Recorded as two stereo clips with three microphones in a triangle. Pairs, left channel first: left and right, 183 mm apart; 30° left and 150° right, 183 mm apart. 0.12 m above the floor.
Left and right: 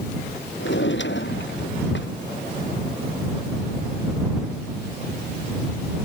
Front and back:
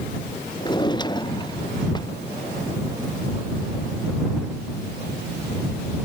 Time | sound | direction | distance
0.6 | a drawer | 95° left | ?